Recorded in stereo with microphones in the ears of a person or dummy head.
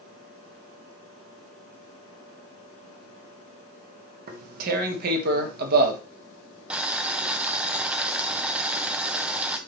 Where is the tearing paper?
55° right (ahead or behind), 1.4 m.